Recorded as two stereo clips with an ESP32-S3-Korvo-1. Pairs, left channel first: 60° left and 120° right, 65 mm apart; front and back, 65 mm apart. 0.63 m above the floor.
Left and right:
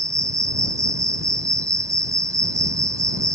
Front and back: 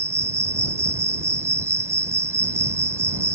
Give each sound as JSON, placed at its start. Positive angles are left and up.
{"t": 0.0, "sound": "an insect", "azimuth_deg": -140}